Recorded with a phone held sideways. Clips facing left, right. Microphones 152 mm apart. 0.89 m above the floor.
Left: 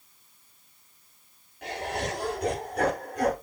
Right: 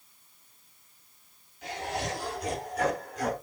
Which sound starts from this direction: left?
Laughter, at 1.6 s.